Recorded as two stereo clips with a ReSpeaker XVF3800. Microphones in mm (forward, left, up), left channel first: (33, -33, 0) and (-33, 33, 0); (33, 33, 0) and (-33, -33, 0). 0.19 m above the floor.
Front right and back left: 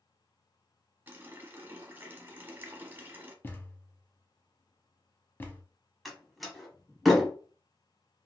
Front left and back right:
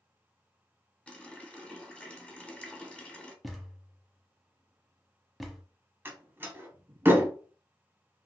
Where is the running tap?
105° left, 0.7 m.